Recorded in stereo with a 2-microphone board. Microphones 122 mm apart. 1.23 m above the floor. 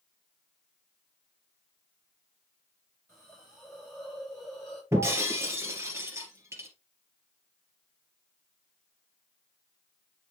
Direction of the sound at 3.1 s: 5° left (ahead or behind).